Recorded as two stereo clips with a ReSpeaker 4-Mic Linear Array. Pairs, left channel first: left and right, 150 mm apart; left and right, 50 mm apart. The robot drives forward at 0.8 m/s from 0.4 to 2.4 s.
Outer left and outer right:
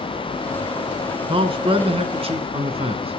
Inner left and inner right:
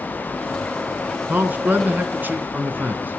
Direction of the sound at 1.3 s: 35° right (ahead or behind).